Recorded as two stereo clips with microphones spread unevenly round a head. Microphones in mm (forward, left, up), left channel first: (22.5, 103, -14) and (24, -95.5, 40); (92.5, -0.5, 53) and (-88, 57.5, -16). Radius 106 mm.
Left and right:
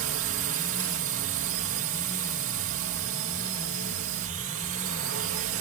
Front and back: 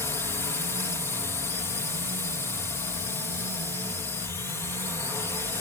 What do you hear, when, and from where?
0.0 s a drone: 110° right